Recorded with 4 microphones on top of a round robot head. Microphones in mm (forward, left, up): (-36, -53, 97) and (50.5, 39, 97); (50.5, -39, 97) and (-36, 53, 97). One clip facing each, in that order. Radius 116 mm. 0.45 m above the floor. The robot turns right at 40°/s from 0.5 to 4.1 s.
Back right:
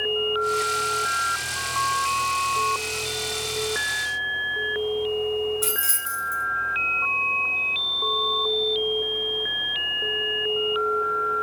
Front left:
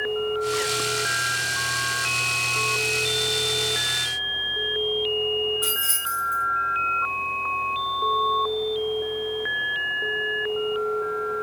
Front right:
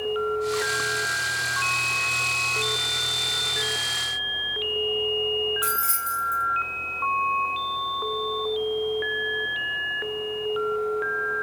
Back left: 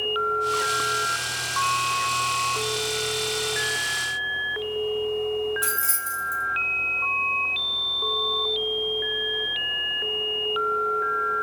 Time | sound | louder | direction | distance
5.6 | keys jangling | back right 1 dB, front right 2 dB | 175° right | 1.1 m